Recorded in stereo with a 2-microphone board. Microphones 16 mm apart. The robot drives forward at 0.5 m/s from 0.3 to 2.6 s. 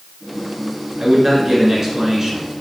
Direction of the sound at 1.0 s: 20° right (ahead or behind).